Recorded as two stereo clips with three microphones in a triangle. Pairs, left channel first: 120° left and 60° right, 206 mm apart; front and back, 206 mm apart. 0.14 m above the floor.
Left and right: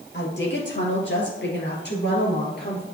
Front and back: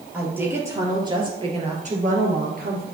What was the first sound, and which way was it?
A woman speaking, 95° left.